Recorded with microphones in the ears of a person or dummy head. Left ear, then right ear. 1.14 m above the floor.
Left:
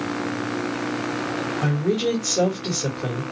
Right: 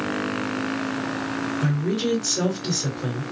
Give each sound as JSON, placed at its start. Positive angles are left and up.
{"t": 1.6, "sound": "a woman speaking", "side_deg": 35, "distance_m": 1.7}